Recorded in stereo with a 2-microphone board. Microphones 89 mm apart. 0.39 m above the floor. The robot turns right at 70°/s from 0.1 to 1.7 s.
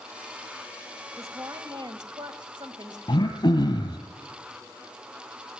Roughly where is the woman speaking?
Behind right.